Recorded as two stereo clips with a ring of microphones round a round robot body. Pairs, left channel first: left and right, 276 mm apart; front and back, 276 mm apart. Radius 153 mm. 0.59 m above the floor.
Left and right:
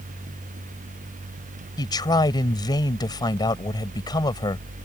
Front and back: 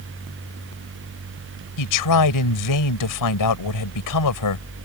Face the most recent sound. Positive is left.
turn(degrees=15)